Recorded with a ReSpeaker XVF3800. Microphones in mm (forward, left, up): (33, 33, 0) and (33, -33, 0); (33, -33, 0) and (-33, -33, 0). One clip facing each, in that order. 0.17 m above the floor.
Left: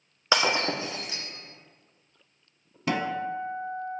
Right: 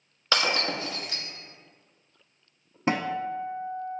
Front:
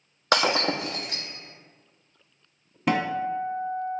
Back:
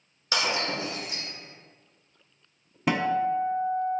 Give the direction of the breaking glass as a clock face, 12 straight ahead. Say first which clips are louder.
Left 2 dB, front 5 dB; 11 o'clock.